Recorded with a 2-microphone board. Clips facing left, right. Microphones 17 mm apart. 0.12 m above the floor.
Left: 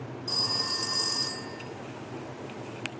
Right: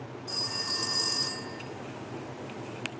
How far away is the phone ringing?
About 2.5 m.